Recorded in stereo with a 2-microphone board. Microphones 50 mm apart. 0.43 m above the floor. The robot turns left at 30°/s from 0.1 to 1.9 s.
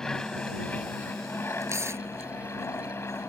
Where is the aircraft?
165° left; by 3.3 s 110° left.